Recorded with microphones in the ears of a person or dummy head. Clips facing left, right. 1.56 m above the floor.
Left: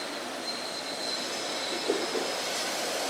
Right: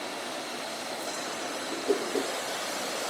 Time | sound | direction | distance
1.7 | a whoosh | 5° right (ahead or behind) | 1.7 m